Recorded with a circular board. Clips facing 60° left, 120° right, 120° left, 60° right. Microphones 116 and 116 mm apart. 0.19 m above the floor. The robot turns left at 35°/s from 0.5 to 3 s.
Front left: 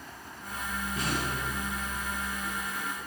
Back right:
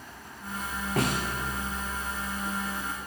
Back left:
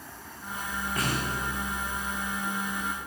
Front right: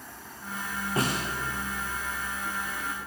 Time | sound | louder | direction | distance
1.0 | a snare drum | back right 6 dB, front right 3 dB | 120° right | 7 m